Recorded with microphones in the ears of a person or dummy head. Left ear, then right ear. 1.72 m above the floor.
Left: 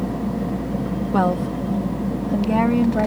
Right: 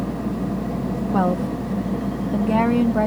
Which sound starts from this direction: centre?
A woman speaking, at 1.1 s.